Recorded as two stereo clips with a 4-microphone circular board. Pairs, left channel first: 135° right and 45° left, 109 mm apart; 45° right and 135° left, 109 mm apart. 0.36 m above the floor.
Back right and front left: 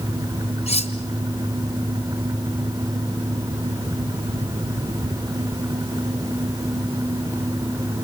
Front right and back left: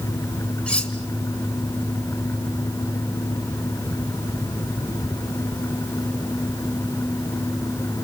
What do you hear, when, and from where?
0.7 s cutlery clinking: 125° right, 2.5 m